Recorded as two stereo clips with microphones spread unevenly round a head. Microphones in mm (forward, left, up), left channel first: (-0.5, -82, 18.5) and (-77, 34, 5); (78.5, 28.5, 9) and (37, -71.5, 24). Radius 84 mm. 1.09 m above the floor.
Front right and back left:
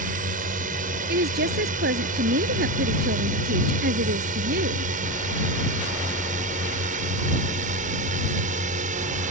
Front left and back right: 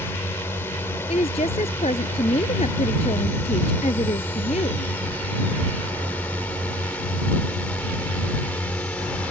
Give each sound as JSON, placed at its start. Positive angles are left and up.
{"t": 0.0, "sound": "a drone", "azimuth_deg": 145}
{"t": 1.1, "sound": "a woman speaking", "azimuth_deg": 125}